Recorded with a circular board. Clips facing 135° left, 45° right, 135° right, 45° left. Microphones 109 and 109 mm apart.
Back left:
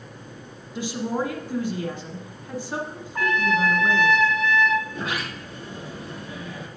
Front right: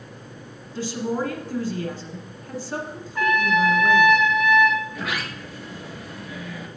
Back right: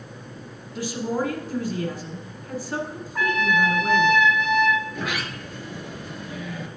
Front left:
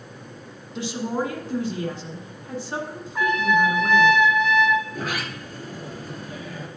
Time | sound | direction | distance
0.8 | a woman speaking | 85° left | 1.4 m
3.1 | a trumpet | 130° left | 1.4 m
4.9 | a sliding door | 85° left | 1.3 m